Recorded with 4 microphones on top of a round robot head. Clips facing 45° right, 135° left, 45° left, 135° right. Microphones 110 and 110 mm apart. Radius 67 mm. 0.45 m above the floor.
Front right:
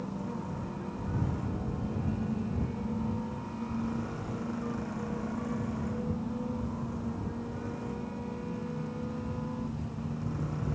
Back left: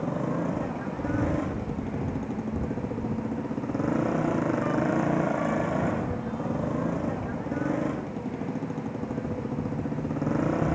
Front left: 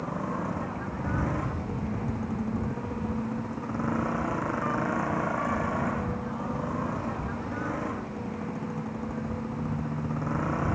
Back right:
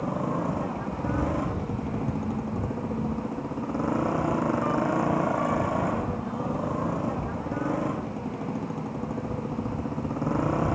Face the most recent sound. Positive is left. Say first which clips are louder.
# back left 9 dB, back right 4 dB
turn(degrees=160)